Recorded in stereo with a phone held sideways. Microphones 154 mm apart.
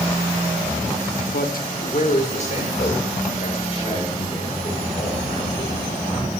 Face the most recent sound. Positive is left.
turn(degrees=30)  # may be behind; listen again after turning